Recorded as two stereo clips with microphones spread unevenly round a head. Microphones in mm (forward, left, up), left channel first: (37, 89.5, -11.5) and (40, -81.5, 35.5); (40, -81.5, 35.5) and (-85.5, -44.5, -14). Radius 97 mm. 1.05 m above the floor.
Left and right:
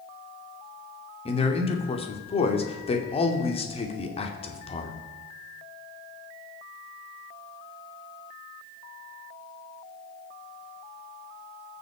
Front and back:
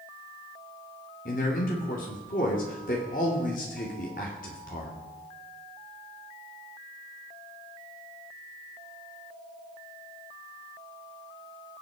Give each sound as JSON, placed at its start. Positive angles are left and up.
{"t": 1.2, "sound": "a man speaking", "azimuth_deg": 35, "distance_m": 2.5}